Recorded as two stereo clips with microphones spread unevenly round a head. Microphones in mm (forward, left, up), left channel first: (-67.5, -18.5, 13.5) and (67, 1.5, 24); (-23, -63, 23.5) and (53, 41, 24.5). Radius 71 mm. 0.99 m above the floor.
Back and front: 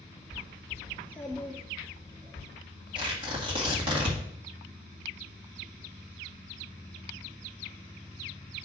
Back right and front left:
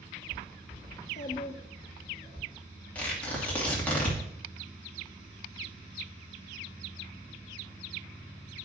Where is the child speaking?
120° right, 0.5 m; by 2.4 s 55° right, 2.5 m.